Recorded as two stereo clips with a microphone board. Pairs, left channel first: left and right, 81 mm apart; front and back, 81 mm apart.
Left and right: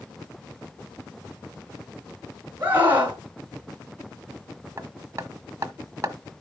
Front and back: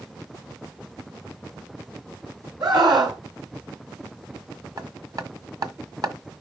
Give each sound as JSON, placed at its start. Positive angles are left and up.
{"t": 2.6, "sound": "a scream", "azimuth_deg": -155, "distance_m": 4.0}
{"t": 4.8, "sound": "hammering", "azimuth_deg": -145, "distance_m": 1.3}